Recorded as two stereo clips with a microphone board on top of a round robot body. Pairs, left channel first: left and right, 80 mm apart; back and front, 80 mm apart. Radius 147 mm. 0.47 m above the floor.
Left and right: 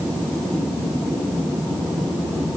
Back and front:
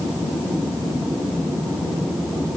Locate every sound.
Only background noise.